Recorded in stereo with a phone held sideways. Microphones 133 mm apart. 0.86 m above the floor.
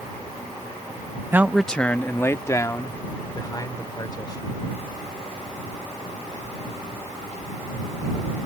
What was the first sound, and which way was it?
A man speaking, 15° right (ahead or behind).